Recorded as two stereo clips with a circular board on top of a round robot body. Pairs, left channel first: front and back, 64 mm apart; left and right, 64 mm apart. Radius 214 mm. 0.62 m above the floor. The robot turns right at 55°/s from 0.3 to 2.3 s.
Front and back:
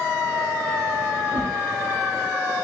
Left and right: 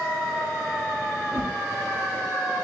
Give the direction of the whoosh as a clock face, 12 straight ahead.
5 o'clock.